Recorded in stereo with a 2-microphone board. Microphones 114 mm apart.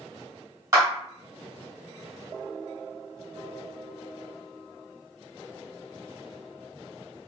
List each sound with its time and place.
0.7 s a clap: 30° right (ahead or behind), 1.8 m